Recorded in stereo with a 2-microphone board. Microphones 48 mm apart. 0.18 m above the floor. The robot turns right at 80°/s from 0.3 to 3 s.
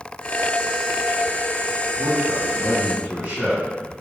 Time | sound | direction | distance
2.0 | a man speaking | centre (ahead or behind) | 1.7 m